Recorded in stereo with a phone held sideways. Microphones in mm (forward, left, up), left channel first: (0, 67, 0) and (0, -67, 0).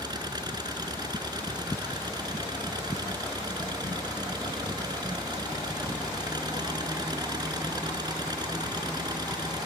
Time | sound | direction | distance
0.0 | an engine running | 30° right (ahead or behind) | ?